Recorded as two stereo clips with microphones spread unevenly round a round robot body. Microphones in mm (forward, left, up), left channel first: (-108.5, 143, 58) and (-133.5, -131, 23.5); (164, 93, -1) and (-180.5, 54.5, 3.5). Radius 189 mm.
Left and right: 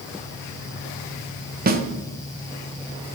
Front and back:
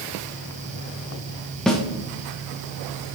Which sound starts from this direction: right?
A snare drum, at 1.7 s.